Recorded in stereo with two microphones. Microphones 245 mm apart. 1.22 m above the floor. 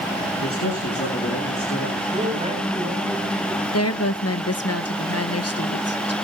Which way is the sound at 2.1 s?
30° right (ahead or behind).